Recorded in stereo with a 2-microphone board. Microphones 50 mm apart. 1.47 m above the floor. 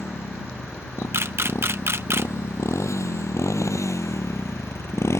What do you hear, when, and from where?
0.0 s a motorcycle: 60° left (ahead or behind); by 5.2 s 65° left (ahead or behind)
1.1 s a camera shutter: 55° right (ahead or behind)